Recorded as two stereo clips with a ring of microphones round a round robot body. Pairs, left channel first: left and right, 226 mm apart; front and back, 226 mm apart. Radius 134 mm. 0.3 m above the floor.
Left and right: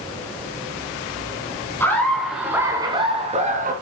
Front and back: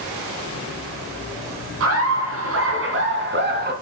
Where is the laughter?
170° left, 3 m; by 3.7 s 140° right, 3.5 m.